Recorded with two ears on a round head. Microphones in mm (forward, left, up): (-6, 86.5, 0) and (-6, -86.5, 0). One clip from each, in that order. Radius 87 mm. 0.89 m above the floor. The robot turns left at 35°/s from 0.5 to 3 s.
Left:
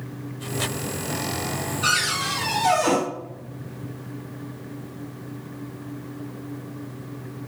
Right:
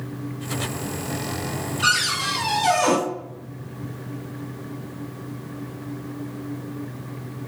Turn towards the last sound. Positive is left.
turn(degrees=-85)